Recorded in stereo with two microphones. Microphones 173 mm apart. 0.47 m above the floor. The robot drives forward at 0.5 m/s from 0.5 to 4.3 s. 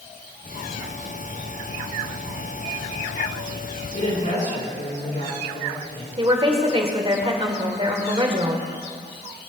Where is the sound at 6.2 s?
30° right (ahead or behind), 1.9 m.